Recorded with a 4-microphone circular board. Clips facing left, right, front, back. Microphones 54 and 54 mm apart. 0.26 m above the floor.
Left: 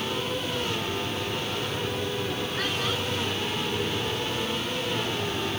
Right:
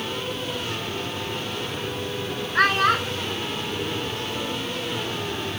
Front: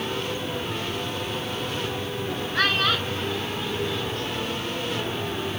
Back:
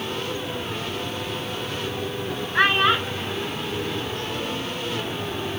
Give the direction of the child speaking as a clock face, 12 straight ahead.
4 o'clock.